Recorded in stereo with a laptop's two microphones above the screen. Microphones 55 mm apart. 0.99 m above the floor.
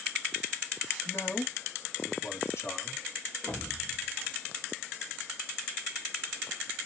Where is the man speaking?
55° left (ahead or behind), 1.5 m.